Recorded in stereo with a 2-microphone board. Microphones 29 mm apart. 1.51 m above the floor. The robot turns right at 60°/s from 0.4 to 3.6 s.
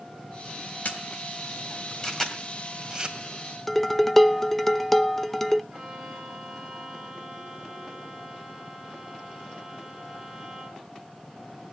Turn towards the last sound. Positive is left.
turn(degrees=-30)  # may be behind; listen again after turning